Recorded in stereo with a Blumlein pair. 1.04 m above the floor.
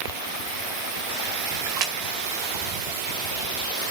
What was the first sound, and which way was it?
A splash, 45° right.